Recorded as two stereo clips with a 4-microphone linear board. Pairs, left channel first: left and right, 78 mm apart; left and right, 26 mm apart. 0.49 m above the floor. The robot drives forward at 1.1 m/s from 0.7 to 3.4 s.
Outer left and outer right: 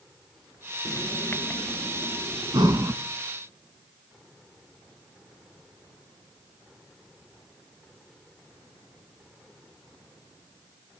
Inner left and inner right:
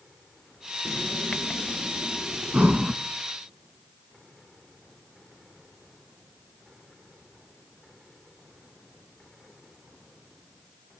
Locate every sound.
0.8 s writing: 40° left (ahead or behind), 1.4 m; by 2.8 s 15° left (ahead or behind), 3.5 m
2.5 s breathing: 65° right (ahead or behind), 1.6 m; by 3.0 s 50° right (ahead or behind), 1.9 m